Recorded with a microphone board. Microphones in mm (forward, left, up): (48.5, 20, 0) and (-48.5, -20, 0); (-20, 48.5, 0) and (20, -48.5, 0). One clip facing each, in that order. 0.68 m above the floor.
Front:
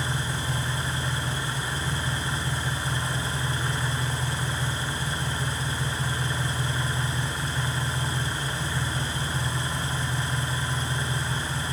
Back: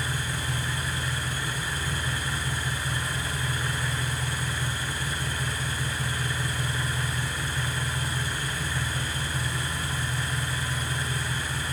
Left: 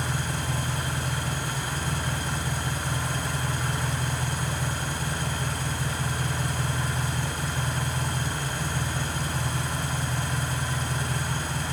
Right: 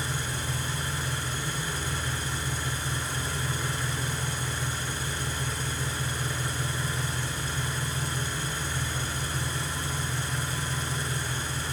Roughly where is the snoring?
No snoring in this recording.